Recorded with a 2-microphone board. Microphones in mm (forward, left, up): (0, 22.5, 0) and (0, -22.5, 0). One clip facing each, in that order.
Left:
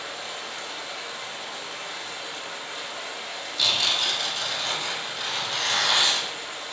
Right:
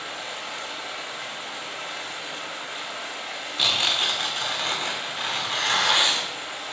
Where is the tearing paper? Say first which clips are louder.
Right 1 dB; 35° right (ahead or behind), 0.6 m.